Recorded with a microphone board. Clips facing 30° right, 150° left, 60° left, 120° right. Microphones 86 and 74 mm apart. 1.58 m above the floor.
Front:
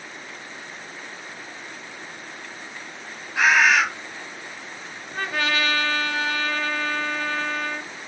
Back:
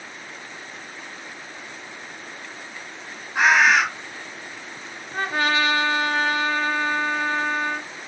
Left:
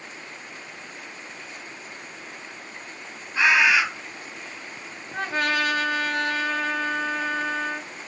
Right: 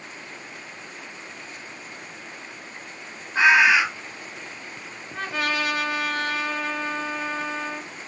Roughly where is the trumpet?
Left.